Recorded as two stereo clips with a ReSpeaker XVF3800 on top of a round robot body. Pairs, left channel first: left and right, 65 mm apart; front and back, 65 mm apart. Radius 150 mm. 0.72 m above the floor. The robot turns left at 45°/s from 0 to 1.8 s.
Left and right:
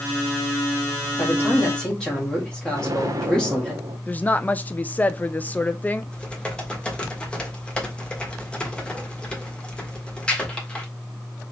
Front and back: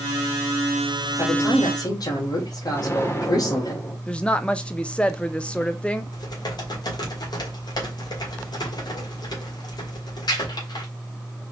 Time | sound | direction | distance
1.2 | a man speaking | 40° left | 2 m
2.7 | an explosion | 50° right | 1.1 m
4.1 | a woman speaking | 55° left | 0.6 m
6.1 | typing on a keyboard | 15° left | 1.7 m